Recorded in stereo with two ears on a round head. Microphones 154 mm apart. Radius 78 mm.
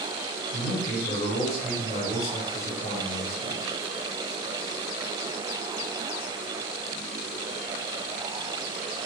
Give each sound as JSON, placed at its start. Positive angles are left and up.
{"t": 0.5, "sound": "a man speaking", "side_deg": 55, "distance_m": 2.5}